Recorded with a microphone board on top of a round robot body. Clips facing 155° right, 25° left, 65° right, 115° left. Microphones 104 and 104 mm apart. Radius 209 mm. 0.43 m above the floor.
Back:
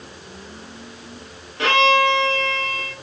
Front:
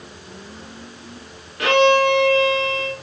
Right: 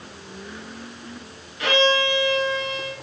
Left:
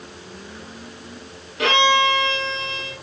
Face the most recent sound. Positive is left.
turn(degrees=140)